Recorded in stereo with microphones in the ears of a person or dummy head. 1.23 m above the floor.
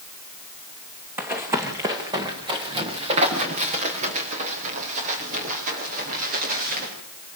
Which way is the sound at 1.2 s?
10° right (ahead or behind).